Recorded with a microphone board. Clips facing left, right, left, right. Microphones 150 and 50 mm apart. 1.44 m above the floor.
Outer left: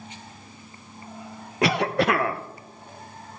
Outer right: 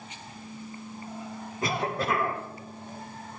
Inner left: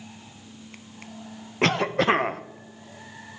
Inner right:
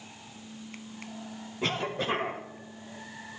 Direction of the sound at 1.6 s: 80° left.